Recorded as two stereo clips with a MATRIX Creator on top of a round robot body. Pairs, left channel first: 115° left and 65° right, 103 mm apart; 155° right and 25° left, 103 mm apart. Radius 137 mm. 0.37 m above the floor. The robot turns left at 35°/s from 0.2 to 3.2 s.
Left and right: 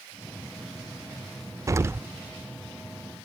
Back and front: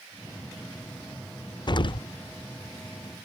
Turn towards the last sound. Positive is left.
turn(degrees=-175)